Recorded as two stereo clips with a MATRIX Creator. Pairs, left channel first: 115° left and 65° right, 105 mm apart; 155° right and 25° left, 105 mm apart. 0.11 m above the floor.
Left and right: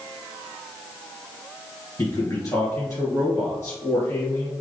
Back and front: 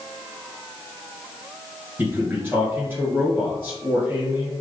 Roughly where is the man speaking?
Left.